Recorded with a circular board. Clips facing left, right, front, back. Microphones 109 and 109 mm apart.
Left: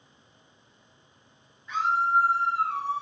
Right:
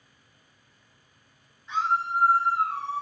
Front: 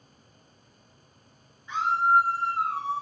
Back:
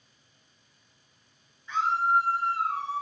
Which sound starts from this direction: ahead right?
A scream, at 1.7 s.